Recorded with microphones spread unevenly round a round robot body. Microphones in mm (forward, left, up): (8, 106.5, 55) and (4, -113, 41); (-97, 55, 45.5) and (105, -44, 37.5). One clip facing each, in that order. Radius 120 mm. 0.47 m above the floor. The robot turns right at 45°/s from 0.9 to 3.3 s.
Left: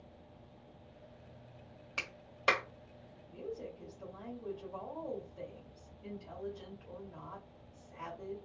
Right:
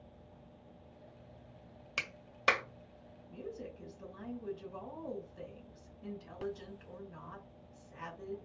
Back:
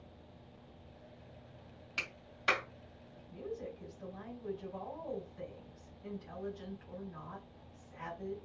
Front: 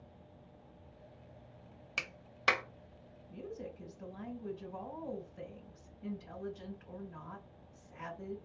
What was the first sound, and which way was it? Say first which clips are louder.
A clap: even, front 1 dB; 45° right.